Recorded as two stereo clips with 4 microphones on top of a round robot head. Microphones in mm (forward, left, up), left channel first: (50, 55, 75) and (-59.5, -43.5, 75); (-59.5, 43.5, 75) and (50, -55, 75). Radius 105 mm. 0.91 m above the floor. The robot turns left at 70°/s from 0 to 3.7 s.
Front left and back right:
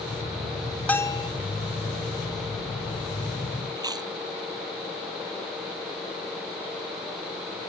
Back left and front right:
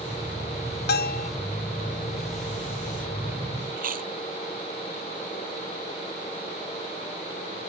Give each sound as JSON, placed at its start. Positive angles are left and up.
{"t": 0.9, "sound": "a bell", "azimuth_deg": 125}
{"t": 3.8, "sound": "chewing", "azimuth_deg": -70}